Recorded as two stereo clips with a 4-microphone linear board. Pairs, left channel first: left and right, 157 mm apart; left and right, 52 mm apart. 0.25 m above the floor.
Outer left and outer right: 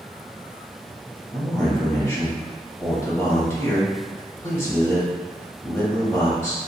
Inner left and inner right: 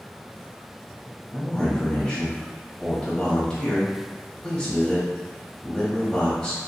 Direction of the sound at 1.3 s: 15° left (ahead or behind).